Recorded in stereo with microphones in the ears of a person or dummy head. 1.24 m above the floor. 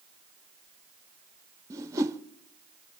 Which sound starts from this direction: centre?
A whoosh, at 1.7 s.